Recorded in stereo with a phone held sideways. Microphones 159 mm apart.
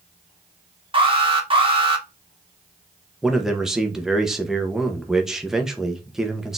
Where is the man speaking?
5° right (ahead or behind), 1.0 m.